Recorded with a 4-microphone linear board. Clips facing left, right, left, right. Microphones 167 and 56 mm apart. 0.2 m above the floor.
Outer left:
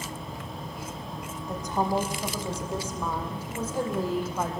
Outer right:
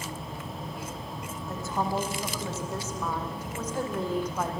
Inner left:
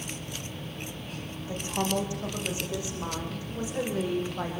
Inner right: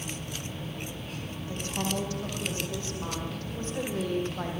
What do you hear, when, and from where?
1.5 s a woman speaking: 20° left (ahead or behind), 9 m; by 4.6 s 5° left (ahead or behind), 8.5 m